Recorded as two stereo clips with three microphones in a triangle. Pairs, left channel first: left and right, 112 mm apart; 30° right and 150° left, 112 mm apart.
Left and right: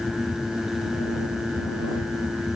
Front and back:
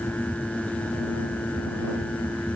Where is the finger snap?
I don't hear a finger snap.